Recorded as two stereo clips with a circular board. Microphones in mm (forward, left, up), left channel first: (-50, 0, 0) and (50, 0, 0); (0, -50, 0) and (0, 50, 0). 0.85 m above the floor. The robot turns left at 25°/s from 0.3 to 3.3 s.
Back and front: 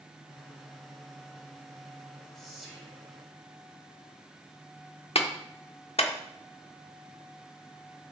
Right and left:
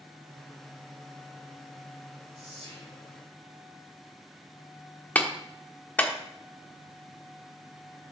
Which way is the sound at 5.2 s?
165° right.